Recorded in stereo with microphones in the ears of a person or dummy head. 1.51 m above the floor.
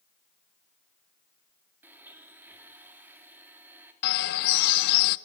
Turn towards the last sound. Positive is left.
turn(degrees=60)  # may be behind; listen again after turning